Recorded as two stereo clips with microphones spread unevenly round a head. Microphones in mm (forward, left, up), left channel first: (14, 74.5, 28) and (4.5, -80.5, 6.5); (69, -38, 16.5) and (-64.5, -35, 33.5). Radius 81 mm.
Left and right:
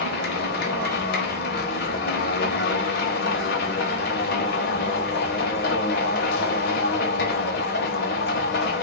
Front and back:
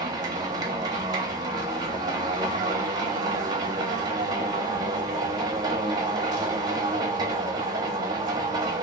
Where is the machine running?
110° left, 0.7 m.